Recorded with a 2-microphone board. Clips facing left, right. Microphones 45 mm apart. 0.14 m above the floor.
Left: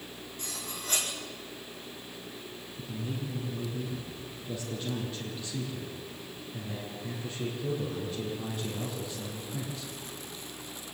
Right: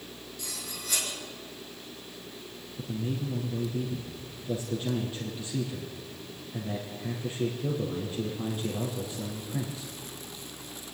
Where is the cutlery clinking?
40° left (ahead or behind), 5 m.